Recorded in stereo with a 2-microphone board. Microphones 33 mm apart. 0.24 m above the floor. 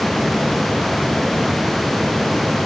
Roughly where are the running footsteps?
I don't hear running footsteps.